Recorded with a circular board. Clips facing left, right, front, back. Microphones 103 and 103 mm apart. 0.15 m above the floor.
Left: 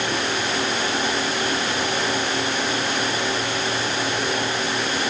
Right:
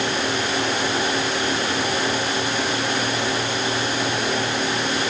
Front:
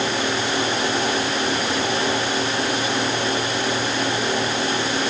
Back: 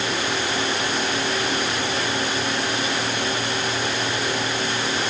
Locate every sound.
Only background noise.